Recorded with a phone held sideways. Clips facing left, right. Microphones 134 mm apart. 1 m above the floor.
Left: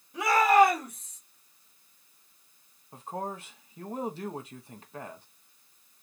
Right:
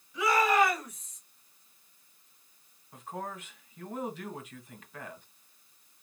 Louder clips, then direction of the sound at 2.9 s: Left 3 dB; 30° left (ahead or behind).